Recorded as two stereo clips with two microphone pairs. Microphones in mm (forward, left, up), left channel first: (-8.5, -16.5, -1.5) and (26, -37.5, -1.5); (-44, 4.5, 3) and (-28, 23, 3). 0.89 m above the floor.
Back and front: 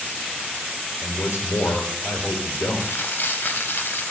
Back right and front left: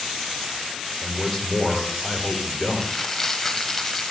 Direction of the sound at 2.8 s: 155° left.